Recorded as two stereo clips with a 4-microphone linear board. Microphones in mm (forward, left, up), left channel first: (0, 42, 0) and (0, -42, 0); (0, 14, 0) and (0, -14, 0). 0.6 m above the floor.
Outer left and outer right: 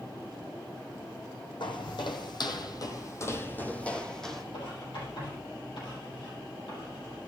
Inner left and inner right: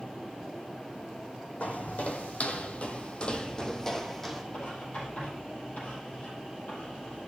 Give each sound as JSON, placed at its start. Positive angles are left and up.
{"t": 1.6, "sound": "footsteps", "side_deg": 70, "distance_m": 1.5}
{"t": 4.5, "sound": "writing", "side_deg": 70, "distance_m": 7.5}